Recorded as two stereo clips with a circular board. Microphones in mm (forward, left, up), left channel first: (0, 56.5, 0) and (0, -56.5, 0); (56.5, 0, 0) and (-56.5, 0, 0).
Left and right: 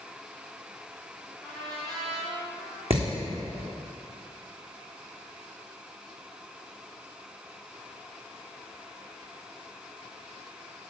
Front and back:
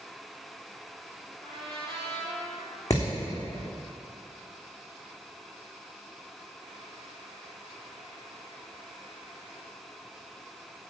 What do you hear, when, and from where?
1.4 s a trumpet: 140° right, 4 m
2.9 s hammering: 60° right, 3 m